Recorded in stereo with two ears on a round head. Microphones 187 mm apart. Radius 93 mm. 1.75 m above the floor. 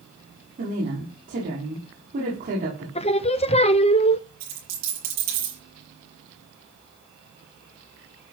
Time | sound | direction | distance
0.6 | a woman speaking | 40° right (ahead or behind) | 5.5 m
3.0 | singing | 30° left (ahead or behind) | 0.6 m
4.4 | a dropped coin | 50° right (ahead or behind) | 8.5 m